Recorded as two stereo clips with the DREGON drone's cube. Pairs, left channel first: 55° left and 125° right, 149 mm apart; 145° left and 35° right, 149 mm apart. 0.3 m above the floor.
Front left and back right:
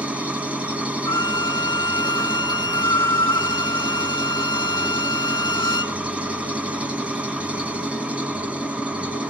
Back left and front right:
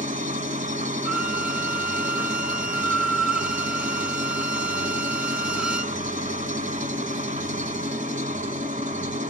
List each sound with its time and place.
0.0 s an engine running: 45° right, 1.5 m
1.1 s a violin: 45° left, 0.7 m